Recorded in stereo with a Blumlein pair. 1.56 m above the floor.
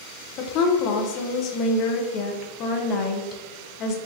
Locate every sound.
0.4 s a woman speaking: 35° left, 0.7 m